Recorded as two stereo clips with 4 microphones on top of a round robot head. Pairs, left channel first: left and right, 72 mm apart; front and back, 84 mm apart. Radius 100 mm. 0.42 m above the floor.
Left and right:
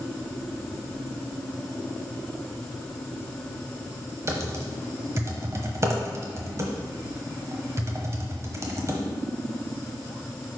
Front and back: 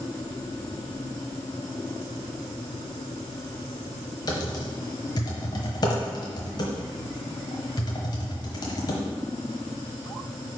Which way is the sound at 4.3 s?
40° right.